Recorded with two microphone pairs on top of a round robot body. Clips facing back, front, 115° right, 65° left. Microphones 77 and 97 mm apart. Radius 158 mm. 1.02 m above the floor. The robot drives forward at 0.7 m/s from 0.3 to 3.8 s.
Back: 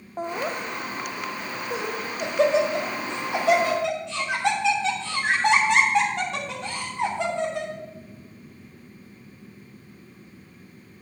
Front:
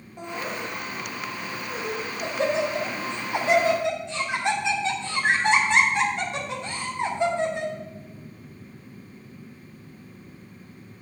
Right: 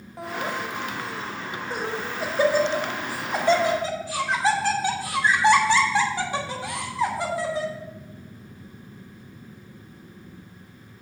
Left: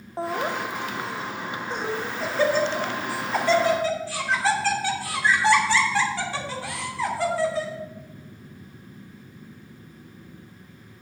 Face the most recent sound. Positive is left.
turn(degrees=170)